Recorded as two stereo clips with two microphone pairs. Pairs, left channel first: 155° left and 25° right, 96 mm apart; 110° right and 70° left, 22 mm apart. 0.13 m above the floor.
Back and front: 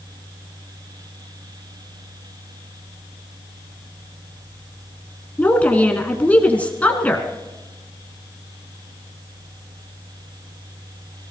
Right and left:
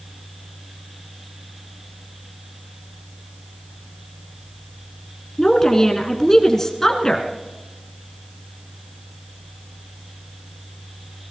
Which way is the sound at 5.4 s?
145° right.